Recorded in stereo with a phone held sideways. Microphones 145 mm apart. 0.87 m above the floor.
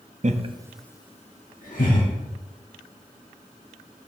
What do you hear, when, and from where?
0.2 s laughter: 55° right (ahead or behind), 0.9 m; by 2.1 s 75° left (ahead or behind), 1.8 m